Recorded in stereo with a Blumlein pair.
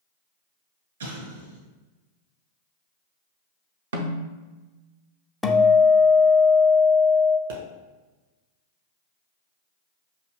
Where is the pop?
60° right, 1.5 m.